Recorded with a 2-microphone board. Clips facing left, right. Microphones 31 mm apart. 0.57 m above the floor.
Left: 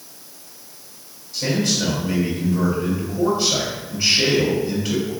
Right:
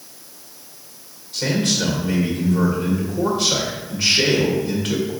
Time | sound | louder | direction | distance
1.3 | a man speaking | right 1 dB | 60° right (ahead or behind) | 2.5 m